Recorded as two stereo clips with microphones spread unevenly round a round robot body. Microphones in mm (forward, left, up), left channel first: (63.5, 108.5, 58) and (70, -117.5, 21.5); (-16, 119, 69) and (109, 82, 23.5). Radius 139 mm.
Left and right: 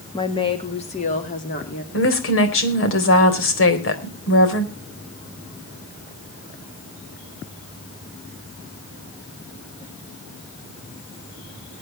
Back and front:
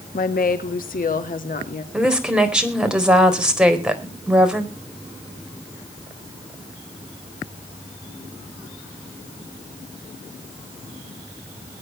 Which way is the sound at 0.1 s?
170° left.